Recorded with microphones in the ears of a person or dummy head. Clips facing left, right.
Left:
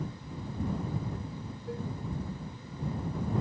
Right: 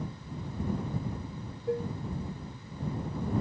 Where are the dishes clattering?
50° right (ahead or behind).